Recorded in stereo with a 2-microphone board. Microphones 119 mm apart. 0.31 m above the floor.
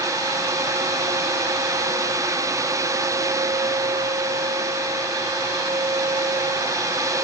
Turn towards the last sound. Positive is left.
No sound to turn to.